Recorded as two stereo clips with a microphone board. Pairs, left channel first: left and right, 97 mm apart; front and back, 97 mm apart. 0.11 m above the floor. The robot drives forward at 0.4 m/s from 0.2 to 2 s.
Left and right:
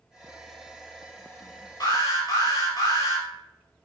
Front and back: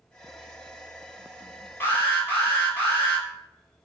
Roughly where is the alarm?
Ahead left.